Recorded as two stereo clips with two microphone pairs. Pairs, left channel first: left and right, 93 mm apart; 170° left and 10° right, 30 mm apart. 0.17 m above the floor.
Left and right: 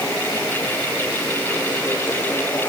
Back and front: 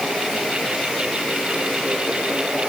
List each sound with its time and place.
Only background noise.